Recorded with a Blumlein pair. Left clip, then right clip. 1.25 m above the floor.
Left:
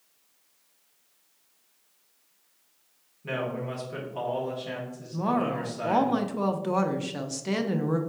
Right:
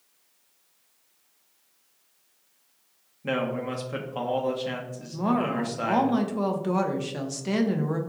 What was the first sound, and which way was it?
A man speaking, 20° right.